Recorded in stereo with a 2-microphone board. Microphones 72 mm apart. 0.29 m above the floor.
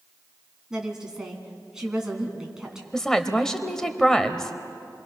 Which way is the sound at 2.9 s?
5° left (ahead or behind).